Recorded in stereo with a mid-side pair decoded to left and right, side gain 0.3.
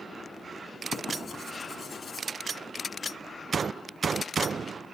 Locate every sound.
0.9 s writing: 55° left, 6 m